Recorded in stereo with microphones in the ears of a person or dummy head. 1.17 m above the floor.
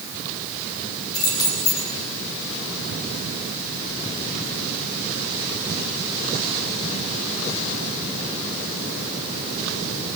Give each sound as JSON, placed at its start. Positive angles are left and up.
{"t": 1.1, "sound": "keys jangling", "side_deg": 20, "distance_m": 5.0}